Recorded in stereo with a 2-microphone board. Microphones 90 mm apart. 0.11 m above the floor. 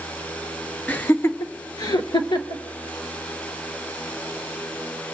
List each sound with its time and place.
0.9 s laughter: 15° left (ahead or behind), 1.2 m; by 2.6 s 55° left (ahead or behind), 2 m